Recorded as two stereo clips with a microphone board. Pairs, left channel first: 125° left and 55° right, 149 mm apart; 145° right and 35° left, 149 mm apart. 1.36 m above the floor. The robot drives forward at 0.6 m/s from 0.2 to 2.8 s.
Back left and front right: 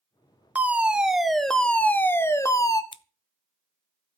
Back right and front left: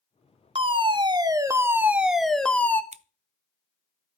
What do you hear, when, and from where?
0.6 s a fire alarm: 20° left, 1.5 m; by 2.8 s 150° left, 1.3 m
2.9 s scissors: 70° left, 0.6 m